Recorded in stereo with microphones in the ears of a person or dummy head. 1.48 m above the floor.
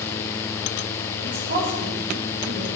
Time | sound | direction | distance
1.2 | a woman speaking | 40° right (ahead or behind) | 4.5 m